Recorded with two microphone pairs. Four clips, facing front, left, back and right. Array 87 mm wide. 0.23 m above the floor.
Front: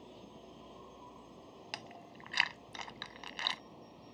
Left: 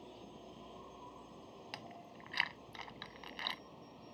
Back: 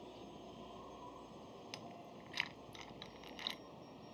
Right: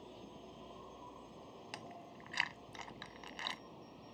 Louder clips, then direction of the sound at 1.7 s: Right 1 dB, front 7 dB; 5° left.